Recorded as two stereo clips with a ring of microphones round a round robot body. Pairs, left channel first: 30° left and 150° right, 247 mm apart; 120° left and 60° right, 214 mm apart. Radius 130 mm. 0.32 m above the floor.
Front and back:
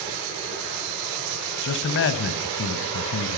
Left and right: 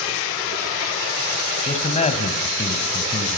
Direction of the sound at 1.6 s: 65° left.